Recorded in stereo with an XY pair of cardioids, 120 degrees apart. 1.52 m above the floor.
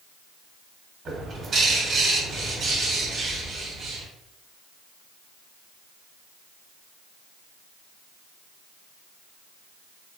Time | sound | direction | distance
1.1 | a bird | 40° right | 1.2 m